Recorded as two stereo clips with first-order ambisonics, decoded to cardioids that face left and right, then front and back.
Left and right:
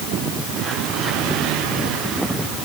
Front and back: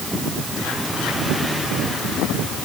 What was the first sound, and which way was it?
Only background noise.